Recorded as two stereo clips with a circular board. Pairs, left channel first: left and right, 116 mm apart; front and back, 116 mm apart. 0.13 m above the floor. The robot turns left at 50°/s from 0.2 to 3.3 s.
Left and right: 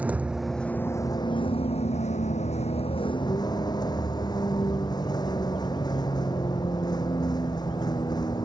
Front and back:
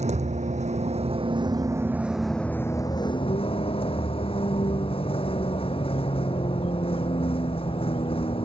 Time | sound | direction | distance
0.0 | a vehicle | 170° right | ?